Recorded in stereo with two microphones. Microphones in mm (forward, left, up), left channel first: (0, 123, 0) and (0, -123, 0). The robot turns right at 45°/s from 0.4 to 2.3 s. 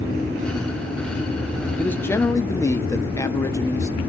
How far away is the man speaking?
About 0.6 m.